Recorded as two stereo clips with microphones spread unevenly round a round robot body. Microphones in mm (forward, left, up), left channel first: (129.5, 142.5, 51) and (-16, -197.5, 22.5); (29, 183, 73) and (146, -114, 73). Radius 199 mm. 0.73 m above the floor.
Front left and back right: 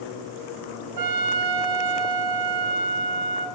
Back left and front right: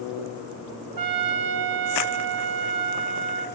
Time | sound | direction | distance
1.0 | a trumpet | 85° right | 2.5 m